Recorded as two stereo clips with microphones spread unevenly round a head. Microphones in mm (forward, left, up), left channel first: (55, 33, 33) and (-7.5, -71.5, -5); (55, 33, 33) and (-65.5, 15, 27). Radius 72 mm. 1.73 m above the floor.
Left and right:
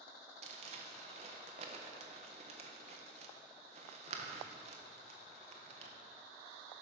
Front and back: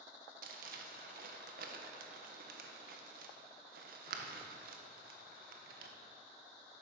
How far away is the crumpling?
About 1.4 m.